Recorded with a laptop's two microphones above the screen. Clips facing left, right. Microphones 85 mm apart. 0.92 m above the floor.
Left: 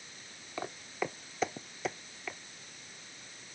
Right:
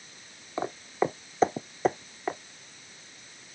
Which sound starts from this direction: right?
Footsteps, at 0.6 s.